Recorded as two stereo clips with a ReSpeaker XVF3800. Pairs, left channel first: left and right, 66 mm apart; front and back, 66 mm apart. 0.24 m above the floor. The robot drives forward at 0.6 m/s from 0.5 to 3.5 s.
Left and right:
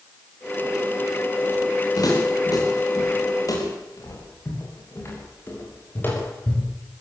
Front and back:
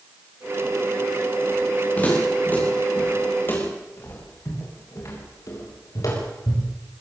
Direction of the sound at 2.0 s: 65° left.